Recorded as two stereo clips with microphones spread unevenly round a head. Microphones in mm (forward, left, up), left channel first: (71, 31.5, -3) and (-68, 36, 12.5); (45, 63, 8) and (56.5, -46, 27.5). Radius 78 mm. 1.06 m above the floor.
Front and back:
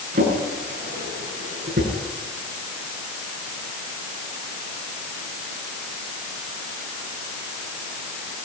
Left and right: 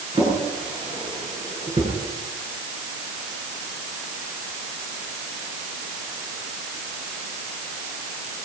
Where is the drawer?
145° right, 9 m.